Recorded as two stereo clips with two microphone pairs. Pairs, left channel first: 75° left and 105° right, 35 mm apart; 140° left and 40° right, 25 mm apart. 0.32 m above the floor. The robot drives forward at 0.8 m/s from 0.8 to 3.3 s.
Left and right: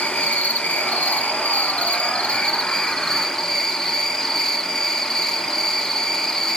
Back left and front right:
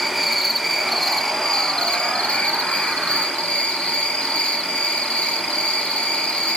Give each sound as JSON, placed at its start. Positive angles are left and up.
{"t": 0.0, "sound": "an insect", "azimuth_deg": 55, "distance_m": 1.3}